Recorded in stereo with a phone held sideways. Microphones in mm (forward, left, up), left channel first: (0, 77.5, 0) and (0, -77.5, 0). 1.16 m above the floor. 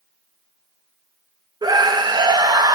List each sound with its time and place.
1.6 s a scream: 25° right (ahead or behind), 0.5 m